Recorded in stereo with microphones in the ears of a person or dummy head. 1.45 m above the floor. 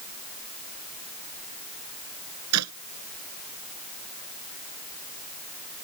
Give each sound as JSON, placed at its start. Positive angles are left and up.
{"t": 2.5, "sound": "a clap", "side_deg": -85}